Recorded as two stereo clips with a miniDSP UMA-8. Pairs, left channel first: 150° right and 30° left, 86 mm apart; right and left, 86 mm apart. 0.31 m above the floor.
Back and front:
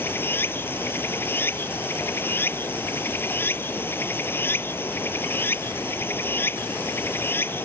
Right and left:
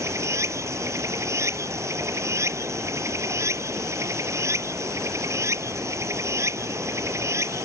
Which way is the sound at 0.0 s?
145° left.